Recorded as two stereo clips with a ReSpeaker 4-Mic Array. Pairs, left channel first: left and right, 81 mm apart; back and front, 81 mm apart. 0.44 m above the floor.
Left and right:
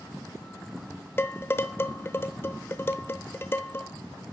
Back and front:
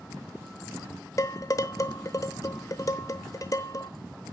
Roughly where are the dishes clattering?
Behind left.